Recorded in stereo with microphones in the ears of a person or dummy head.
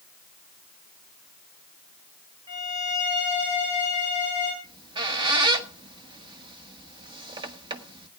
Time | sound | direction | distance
2.5 | a violin | 25° right (ahead or behind) | 8.5 m
4.6 | a squeak | 25° right (ahead or behind) | 1.1 m